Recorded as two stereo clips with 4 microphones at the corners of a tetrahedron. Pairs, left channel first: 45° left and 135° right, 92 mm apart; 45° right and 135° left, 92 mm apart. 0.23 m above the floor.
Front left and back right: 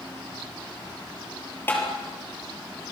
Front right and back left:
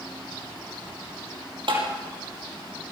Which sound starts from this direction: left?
Tapping, at 1.7 s.